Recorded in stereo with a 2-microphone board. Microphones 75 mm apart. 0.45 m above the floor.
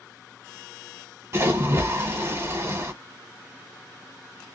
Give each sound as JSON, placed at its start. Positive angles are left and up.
{"t": 1.3, "sound": "a splash", "side_deg": -40, "distance_m": 1.4}